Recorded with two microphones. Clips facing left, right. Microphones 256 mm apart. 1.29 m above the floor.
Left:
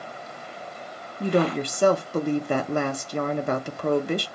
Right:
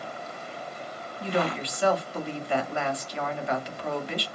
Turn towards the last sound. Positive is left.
turn(degrees=50)  # may be behind; listen again after turning